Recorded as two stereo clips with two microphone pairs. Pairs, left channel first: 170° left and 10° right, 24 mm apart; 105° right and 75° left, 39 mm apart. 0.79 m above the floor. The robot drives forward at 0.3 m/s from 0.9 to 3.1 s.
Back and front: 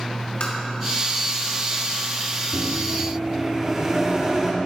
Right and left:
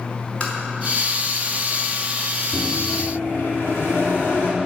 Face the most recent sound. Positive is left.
turn(degrees=-80)